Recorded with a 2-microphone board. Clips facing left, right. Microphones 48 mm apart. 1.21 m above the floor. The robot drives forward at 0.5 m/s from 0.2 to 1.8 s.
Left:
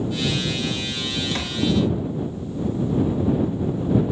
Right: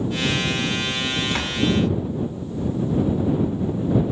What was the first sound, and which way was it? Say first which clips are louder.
A door slam: even; 15° right (ahead or behind).